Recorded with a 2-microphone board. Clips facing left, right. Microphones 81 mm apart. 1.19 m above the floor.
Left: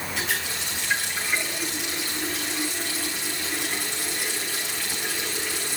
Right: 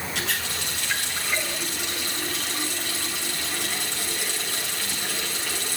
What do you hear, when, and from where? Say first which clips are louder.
0.1 s a running tap: left 2 dB; 75° right (ahead or behind), 7.5 m